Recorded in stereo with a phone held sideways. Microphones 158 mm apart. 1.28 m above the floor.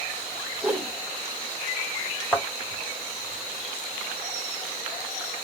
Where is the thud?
10° left (ahead or behind), 2.0 m.